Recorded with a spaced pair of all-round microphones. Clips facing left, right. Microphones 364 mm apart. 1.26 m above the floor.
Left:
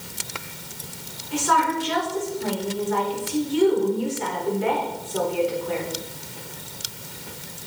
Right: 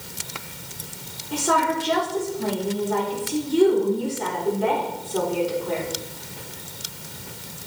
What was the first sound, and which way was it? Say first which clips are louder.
A woman speaking: right 1 dB; 60° right (ahead or behind).